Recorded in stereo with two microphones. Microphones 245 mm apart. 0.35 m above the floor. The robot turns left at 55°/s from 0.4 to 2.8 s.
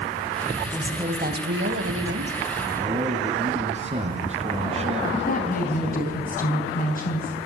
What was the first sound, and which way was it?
A woman speaking, 20° right.